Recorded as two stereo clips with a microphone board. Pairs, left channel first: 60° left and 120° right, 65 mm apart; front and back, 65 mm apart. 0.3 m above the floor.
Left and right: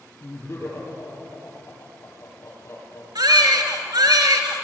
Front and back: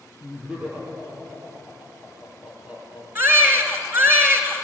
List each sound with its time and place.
0.2 s laughter: 105° left, 10 m
3.1 s a baby crying: 120° right, 3 m